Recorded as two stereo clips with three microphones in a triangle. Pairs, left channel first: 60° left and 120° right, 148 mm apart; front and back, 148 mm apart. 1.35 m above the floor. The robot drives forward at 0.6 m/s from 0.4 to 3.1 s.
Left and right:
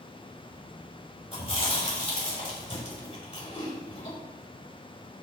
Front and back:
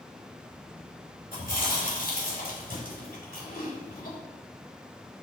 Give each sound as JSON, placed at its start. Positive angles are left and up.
{"t": 1.3, "sound": "chewing", "azimuth_deg": 15, "distance_m": 5.0}